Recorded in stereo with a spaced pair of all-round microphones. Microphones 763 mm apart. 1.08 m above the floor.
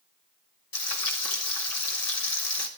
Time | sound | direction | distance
0.7 | frying | 50° left (ahead or behind) | 1.5 m